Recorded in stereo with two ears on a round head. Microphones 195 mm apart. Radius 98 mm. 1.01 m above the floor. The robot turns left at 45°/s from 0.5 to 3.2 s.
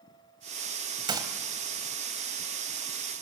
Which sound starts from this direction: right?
A gunshot, at 1.1 s.